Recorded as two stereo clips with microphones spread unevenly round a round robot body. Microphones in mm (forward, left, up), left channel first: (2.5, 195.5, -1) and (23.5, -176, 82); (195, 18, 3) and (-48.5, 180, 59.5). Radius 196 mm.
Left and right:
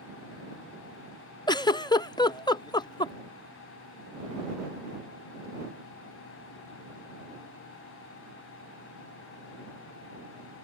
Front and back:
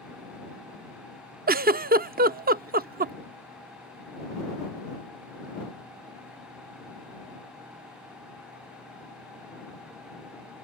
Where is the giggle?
105° left.